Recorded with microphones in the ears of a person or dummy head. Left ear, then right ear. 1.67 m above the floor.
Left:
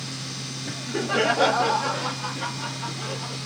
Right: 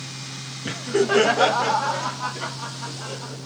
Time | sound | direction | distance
0.7 | laughter | 70° right (ahead or behind) | 0.6 m